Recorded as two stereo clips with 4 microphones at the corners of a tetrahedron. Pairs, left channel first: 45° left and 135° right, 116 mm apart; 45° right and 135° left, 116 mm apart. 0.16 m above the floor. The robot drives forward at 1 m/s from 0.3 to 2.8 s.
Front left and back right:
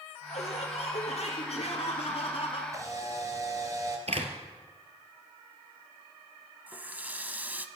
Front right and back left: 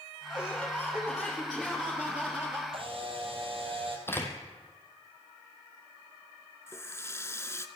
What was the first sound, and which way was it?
Laughter, 30° left.